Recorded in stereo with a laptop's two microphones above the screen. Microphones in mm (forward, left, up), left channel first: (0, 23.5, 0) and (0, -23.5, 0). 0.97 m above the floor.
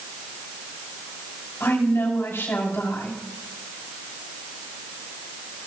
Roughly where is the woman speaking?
Left.